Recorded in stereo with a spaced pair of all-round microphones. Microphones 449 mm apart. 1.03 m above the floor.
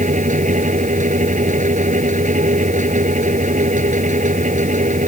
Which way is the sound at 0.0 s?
15° right (ahead or behind).